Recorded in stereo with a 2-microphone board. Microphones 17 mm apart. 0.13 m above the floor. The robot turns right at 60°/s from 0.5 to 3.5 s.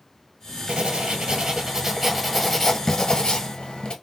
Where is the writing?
95° right, 1.1 m; by 3.9 s 75° left, 1.1 m.